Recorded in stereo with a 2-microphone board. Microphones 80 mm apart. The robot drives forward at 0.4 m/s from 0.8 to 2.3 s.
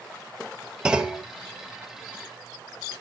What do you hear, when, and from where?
0.8 s a clunk: 10° right (ahead or behind), 0.8 m